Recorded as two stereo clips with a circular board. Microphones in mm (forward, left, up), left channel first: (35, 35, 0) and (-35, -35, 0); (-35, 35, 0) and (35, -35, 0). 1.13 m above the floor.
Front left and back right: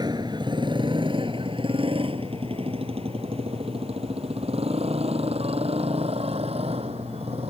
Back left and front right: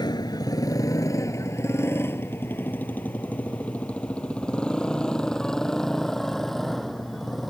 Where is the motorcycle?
Straight behind; by 7.5 s 135° right.